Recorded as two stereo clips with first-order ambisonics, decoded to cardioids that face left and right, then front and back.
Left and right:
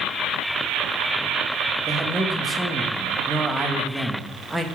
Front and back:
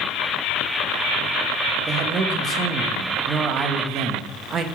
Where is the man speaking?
165° right, 0.8 m.